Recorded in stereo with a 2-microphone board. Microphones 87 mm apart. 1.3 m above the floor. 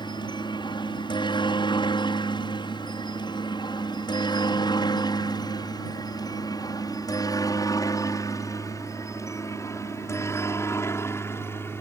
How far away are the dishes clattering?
No dishes clattering in this recording.